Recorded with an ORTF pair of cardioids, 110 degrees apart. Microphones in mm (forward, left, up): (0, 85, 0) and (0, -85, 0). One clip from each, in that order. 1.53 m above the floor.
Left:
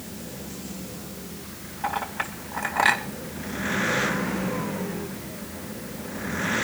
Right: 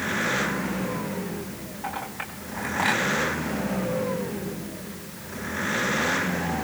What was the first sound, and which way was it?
A clink, 35° left.